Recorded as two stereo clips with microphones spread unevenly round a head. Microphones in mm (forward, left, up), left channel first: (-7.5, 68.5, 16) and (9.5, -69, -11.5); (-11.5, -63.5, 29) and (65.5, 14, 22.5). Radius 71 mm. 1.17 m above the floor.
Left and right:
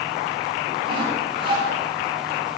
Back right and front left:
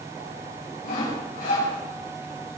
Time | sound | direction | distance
0.8 | sawing | 140° right | 6.5 m